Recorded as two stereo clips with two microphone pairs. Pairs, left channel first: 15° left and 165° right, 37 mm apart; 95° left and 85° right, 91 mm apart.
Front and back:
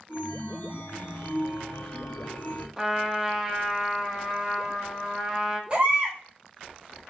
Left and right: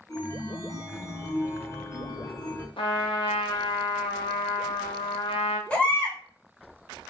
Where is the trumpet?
115° left, 0.7 m.